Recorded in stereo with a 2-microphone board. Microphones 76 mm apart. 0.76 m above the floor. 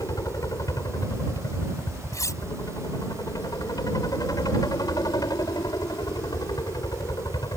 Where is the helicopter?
50° left (ahead or behind); by 7.6 s 55° left (ahead or behind).